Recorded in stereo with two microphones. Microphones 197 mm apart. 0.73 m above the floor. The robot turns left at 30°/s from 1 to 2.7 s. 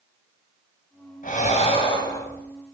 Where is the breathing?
45° left, 3 m; by 2.5 s 10° left, 3 m.